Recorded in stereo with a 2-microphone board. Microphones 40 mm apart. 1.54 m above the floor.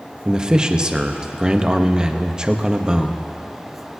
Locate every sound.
0.2 s a man speaking: 20° right (ahead or behind), 0.9 m